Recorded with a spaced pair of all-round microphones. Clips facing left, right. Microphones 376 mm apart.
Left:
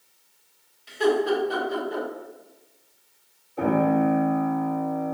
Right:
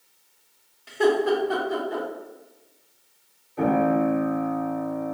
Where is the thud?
No thud in this recording.